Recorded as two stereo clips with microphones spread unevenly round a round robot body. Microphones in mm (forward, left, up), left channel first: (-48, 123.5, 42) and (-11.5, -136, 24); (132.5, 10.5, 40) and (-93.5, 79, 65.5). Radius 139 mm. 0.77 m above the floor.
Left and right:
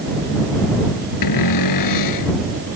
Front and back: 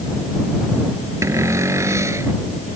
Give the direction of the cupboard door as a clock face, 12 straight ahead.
9 o'clock.